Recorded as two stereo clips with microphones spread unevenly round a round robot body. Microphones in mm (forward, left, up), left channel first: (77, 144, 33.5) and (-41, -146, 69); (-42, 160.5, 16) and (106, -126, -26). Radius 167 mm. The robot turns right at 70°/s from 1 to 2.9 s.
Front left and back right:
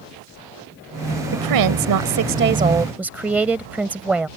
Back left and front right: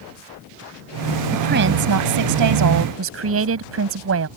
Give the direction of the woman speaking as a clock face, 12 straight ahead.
4 o'clock.